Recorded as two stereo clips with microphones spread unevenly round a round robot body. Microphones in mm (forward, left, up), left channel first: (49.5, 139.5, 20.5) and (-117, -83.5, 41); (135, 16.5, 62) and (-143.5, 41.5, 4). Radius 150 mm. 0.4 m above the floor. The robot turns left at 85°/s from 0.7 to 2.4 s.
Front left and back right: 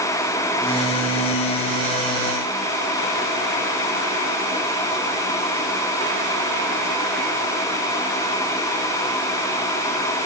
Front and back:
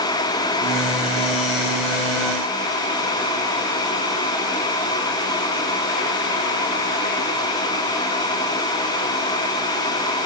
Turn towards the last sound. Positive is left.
No sound to turn to.